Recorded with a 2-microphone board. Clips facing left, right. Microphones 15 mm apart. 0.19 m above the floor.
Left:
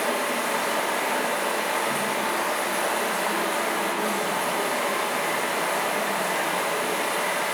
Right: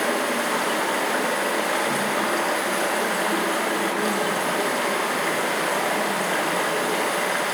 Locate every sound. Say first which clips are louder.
0.0 s running water: right 2 dB; 60° right (ahead or behind), 1.3 m